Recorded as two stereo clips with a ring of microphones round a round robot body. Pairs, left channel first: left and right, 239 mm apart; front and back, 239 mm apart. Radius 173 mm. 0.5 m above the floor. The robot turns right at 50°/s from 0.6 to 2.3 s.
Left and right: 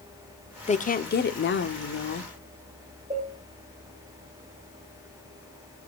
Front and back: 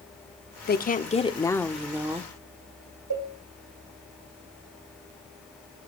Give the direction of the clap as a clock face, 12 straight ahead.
No clap in this recording.